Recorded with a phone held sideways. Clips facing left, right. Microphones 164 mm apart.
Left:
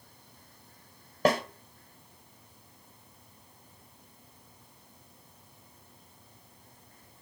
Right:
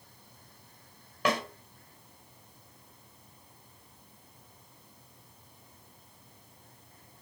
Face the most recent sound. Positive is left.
turn(degrees=40)  # may be behind; listen again after turning